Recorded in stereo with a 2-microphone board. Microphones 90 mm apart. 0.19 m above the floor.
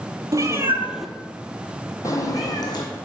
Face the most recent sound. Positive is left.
turn(degrees=50)  # may be behind; listen again after turning